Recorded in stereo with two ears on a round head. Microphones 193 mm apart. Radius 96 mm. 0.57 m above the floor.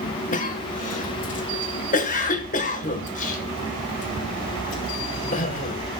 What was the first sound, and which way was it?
A cough, 40° left (ahead or behind).